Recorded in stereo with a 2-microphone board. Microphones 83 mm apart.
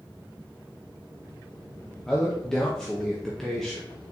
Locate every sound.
2.1 s a man speaking: 5° left (ahead or behind), 0.6 m